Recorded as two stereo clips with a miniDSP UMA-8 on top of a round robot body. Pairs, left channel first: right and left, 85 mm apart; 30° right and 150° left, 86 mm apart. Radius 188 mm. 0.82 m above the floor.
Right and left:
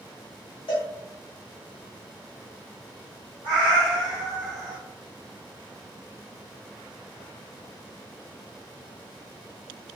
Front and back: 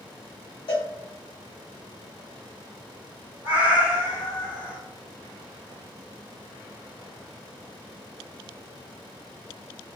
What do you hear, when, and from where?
0.7 s a cowbell: 60° right, 0.5 m
3.4 s a cat meowing: 110° left, 1.6 m